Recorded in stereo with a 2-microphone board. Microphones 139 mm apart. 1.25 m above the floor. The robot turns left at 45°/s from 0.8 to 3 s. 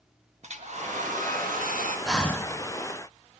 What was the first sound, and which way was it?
A hair dryer, 55° right.